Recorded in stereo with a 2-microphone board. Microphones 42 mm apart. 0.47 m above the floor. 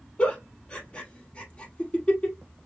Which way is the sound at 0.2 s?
30° left (ahead or behind).